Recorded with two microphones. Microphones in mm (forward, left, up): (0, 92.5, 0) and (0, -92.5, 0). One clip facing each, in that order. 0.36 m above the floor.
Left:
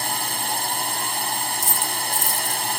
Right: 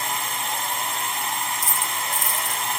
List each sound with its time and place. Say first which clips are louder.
0.0 s a drone: left 1 dB; 40° left (ahead or behind)
1.6 s a dropped coin: left 2 dB; 35° left (ahead or behind)